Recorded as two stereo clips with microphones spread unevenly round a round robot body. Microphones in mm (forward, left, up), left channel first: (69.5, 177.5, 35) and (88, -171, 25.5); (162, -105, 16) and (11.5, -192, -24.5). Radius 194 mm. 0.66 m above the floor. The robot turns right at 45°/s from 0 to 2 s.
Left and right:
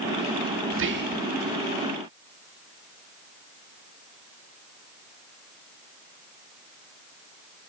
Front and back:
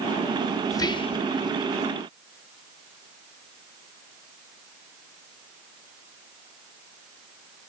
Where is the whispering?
50° right, 0.7 m; by 1.2 s 30° right, 0.7 m.